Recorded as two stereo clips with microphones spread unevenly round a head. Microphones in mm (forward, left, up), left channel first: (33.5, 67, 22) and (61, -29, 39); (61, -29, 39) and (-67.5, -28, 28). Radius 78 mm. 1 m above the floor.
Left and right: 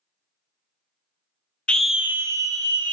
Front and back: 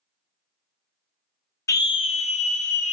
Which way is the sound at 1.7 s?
55° left.